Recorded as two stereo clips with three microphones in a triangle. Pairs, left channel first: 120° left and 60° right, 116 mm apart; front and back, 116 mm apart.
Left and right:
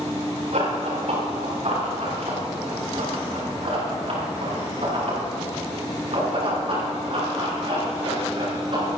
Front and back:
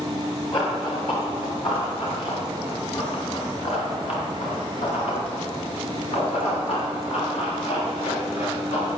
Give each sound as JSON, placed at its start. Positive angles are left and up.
{"t": 0.5, "sound": "running footsteps", "azimuth_deg": -45, "distance_m": 5.5}